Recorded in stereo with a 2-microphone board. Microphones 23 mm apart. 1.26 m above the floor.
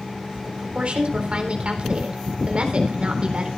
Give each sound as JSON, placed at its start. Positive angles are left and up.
{"t": 0.5, "sound": "a woman speaking", "side_deg": -50, "distance_m": 4.0}